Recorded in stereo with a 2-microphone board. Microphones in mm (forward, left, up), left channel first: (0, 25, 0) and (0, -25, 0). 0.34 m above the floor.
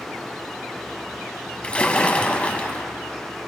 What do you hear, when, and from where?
1.6 s a splash: 20° left (ahead or behind), 1.1 m